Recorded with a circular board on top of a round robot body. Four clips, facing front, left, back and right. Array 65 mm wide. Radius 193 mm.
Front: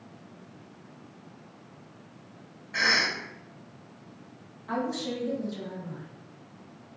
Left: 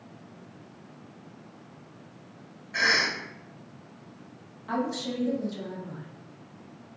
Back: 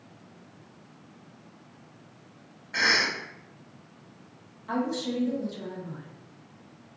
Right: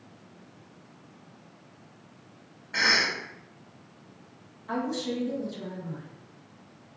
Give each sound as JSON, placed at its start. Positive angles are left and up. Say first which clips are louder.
{"t": 2.7, "sound": "a cough", "louder": "even, back 1 dB", "azimuth_deg": -130, "distance_m": 1.3}
{"t": 4.7, "sound": "a woman speaking", "louder": "even, back 2 dB", "azimuth_deg": 100, "distance_m": 1.3}